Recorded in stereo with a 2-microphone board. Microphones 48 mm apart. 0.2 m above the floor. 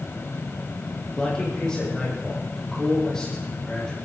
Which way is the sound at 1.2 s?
15° left (ahead or behind).